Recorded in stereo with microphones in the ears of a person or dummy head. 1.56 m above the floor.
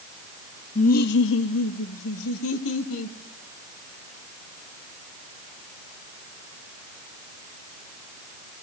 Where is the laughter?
35° left (ahead or behind), 0.6 m; by 3.2 s 80° left, 2.5 m.